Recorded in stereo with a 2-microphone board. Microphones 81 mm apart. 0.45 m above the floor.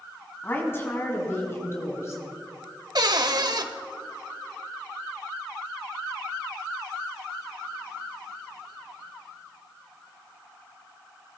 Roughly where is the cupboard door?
Right.